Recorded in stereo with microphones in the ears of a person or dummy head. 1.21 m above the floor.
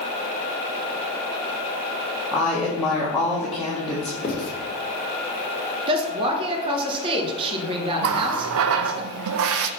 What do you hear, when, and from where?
2.3 s a woman speaking: centre (ahead or behind), 1.3 m
4.2 s writing: 30° left (ahead or behind), 1.6 m
5.9 s a woman speaking: 25° right (ahead or behind), 1.1 m
8.0 s a running tap: 70° right (ahead or behind), 0.5 m